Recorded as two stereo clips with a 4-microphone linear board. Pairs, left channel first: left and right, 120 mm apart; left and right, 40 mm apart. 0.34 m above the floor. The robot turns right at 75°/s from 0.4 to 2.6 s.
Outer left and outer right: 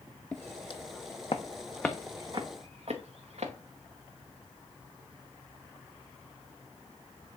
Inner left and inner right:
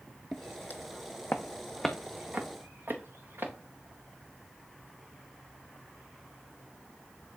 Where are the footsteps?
10° left (ahead or behind), 0.7 m; by 3.5 s 65° right (ahead or behind), 2 m.